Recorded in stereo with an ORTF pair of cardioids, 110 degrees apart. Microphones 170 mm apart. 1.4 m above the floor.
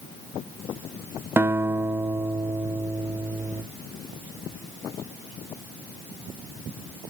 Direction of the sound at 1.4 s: 15° right.